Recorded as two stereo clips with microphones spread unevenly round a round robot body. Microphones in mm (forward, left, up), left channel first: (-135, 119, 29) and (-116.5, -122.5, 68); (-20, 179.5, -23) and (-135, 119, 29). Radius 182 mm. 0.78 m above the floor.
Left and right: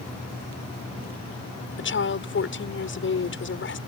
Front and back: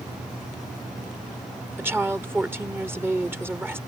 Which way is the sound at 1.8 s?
130° left.